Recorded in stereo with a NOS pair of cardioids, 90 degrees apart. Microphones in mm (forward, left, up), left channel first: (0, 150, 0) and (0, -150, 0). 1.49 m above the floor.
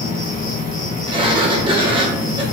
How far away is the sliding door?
About 0.9 m.